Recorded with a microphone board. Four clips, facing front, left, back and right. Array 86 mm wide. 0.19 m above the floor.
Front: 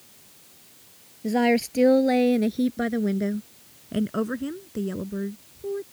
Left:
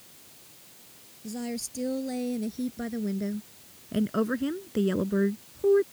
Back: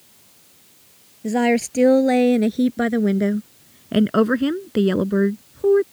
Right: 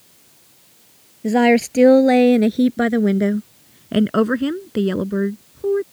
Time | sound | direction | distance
1.2 | a woman speaking | 100° right | ?